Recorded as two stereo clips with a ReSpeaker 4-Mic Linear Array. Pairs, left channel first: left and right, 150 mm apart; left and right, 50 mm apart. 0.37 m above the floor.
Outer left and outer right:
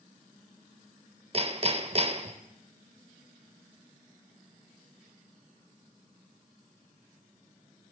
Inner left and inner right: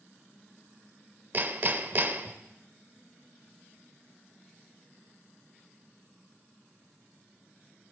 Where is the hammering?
40° right (ahead or behind), 0.6 m.